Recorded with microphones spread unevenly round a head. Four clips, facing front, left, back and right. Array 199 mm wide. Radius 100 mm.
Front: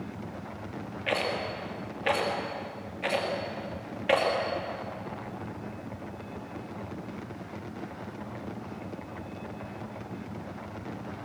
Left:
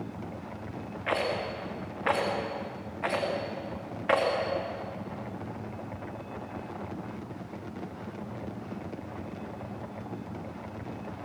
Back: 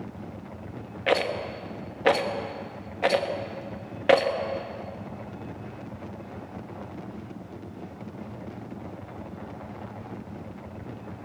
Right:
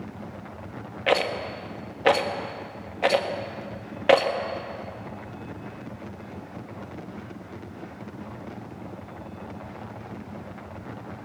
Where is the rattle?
140° right, 1.5 m.